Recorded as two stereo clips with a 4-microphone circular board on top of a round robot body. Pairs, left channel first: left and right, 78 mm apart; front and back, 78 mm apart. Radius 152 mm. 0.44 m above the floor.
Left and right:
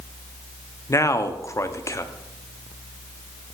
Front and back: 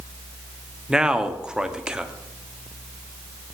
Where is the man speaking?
105° left, 1.1 m.